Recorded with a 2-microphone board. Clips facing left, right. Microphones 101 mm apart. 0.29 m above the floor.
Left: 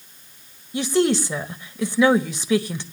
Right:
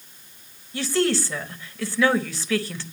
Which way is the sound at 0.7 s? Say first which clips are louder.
Left 3 dB; 20° left (ahead or behind).